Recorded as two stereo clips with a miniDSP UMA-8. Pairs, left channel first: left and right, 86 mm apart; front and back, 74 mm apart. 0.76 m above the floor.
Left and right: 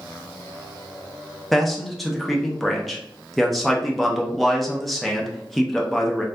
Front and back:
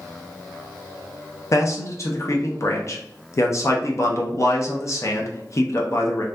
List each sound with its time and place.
1.5 s a man speaking: straight ahead, 0.5 m